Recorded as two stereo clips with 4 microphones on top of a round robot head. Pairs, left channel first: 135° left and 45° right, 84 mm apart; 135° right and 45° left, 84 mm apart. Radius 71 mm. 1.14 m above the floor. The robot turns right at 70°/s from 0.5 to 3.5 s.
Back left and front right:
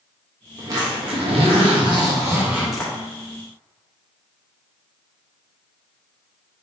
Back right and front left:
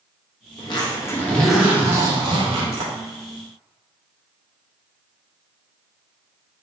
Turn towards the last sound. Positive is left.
turn(degrees=95)